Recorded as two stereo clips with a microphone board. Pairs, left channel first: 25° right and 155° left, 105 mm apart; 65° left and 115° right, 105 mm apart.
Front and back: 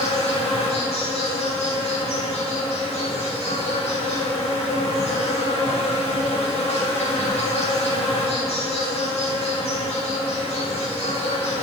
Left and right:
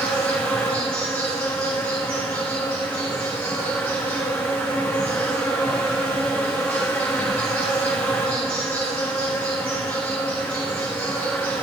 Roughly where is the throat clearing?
I don't hear throat clearing.